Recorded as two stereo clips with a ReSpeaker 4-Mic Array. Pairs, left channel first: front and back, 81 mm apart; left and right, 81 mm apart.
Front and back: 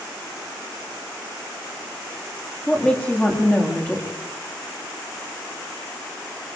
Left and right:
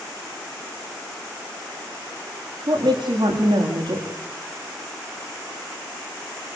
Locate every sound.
2.7 s a woman speaking: 70° right, 9 m